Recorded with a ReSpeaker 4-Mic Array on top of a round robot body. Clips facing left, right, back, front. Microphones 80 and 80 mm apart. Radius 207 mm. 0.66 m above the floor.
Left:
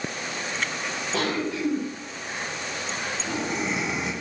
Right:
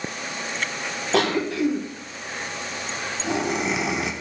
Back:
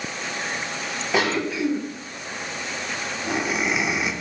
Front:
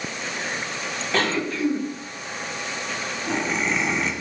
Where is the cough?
100° right, 3 m.